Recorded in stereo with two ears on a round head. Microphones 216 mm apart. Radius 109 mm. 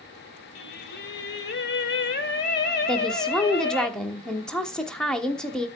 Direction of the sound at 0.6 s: 45° left (ahead or behind).